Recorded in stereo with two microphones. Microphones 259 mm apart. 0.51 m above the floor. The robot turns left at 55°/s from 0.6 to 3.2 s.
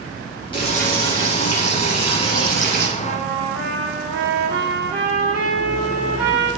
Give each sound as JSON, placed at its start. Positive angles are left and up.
{"t": 0.5, "sound": "frying", "azimuth_deg": 160, "distance_m": 4.5}
{"t": 3.0, "sound": "a trumpet", "side_deg": 75, "distance_m": 3.5}